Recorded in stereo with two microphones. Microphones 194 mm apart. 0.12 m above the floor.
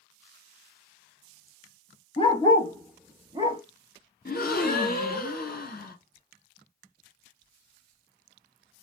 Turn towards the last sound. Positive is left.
turn(degrees=50)  # may be behind; listen again after turning